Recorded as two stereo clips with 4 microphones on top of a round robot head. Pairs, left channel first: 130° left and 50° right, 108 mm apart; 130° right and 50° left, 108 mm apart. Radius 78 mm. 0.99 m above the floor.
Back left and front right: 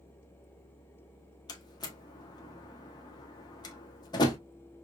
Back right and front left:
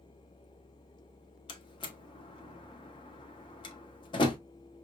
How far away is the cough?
No cough in this recording.